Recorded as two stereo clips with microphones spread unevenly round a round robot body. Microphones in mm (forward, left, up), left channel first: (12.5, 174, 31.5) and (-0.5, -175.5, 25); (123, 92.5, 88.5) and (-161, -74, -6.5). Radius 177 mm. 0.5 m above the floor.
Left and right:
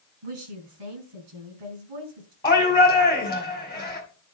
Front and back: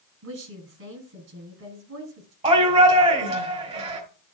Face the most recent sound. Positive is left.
turn(degrees=165)